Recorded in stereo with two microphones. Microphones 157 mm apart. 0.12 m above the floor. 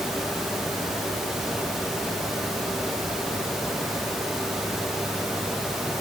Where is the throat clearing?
No throat clearing in this recording.